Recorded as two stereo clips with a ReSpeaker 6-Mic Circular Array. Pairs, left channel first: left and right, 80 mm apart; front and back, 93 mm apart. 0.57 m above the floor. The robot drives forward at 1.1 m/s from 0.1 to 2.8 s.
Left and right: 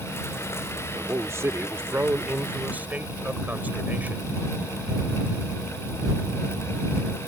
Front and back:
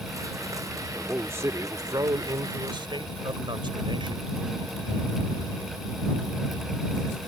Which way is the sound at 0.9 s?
115° right.